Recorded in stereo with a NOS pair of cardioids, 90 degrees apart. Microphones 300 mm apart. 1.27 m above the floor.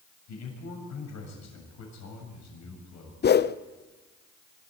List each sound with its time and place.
0.3 s a man speaking: 60° left, 7 m
3.2 s a whoosh: 35° left, 0.7 m